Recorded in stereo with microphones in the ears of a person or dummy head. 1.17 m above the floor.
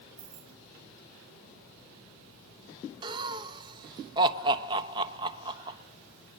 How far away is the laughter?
About 1.0 m.